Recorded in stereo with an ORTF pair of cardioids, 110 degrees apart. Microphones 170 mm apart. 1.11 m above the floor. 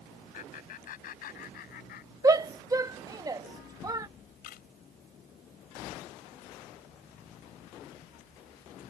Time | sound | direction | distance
0.3 | laughter | 50° left | ?
2.2 | a shout | 20° right | ?
4.4 | a camera shutter | 65° left | ?